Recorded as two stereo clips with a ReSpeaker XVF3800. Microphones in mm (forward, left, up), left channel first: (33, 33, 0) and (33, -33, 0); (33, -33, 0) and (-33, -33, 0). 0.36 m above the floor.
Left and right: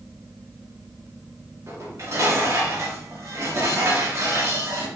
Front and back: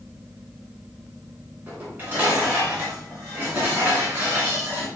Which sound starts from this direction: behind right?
Dishes clattering, at 1.7 s.